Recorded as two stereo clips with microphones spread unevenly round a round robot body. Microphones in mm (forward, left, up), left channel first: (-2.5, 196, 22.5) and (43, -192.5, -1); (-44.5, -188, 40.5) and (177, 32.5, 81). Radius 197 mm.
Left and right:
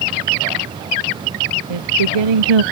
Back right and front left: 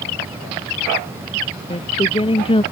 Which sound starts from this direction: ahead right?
Singing, at 1.7 s.